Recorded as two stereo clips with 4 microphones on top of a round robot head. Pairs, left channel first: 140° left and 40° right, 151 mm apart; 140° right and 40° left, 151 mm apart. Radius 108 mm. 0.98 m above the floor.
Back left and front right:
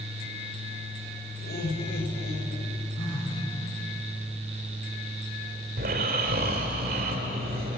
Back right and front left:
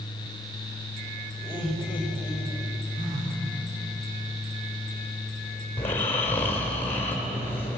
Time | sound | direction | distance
1.4 | laughter | 115° left | 4 m
3.0 | a phone buzzing | 75° left | 5.5 m
5.8 | snoring | 60° right | 3 m